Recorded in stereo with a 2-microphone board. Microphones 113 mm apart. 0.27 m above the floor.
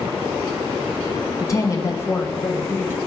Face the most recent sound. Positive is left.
turn(degrees=20)  # may be behind; listen again after turning